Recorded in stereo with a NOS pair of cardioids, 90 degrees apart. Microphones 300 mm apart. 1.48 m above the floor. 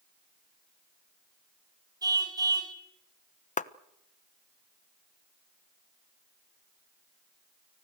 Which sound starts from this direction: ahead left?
A clap, at 3.6 s.